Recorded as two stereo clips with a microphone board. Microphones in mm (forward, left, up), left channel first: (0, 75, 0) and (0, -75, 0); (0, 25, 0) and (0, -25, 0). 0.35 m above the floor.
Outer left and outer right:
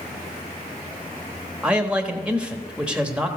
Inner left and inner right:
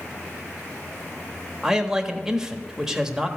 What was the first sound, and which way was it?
A man speaking, 5° right (ahead or behind).